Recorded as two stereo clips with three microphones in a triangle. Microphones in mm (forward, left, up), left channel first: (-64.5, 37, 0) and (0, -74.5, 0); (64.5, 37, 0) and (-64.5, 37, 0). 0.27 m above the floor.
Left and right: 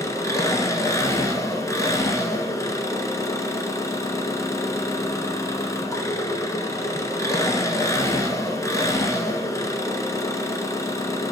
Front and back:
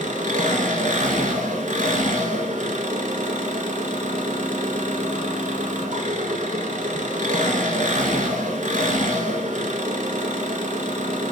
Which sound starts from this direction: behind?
An engine running, at 0.0 s.